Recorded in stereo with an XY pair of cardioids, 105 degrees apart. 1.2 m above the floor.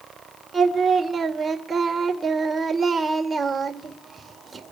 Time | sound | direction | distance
0.5 | singing | 25° right | 2 m